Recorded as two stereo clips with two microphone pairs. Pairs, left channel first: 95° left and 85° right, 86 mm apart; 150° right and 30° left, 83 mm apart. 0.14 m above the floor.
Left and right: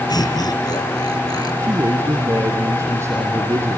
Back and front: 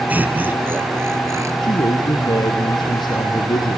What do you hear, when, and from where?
0.1 s laughter: 95° left, 2.5 m; by 1.5 s 75° left, 3 m
1.6 s a man speaking: 140° right, 2.5 m